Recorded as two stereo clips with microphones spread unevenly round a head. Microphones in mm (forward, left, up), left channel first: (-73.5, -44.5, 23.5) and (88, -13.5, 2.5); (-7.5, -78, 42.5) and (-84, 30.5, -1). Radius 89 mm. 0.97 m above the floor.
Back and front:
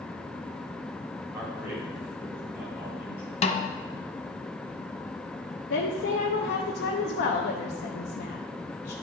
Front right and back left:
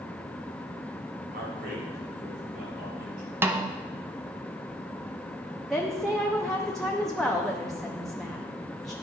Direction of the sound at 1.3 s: 95° left.